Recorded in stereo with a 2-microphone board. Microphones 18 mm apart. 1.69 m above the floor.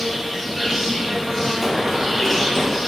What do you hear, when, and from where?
0.0 s an insect: 10° right (ahead or behind), 4.5 m
1.6 s running footsteps: 20° right (ahead or behind), 3 m; by 2.8 s 35° right (ahead or behind), 4.5 m